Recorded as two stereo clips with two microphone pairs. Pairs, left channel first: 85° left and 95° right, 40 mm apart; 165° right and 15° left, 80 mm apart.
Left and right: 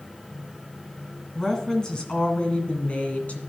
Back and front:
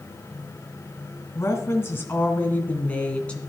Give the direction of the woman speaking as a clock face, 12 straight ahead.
7 o'clock.